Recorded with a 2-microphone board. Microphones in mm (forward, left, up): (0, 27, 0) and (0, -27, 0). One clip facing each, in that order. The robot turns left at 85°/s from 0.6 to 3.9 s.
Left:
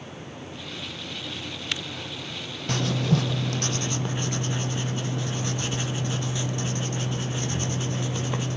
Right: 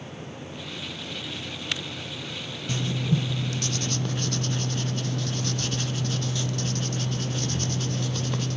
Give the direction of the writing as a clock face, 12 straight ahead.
8 o'clock.